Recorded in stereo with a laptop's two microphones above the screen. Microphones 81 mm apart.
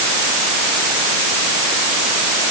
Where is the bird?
No bird in this recording.